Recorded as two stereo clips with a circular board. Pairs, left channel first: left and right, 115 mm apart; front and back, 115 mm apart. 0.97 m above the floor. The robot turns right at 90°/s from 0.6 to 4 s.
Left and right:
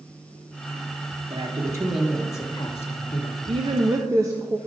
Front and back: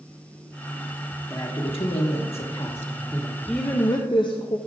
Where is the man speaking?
65° right, 1.3 m; by 3.4 s 115° left, 1.3 m.